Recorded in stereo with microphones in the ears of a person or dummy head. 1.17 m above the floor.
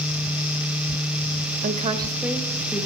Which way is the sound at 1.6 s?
45° right (ahead or behind).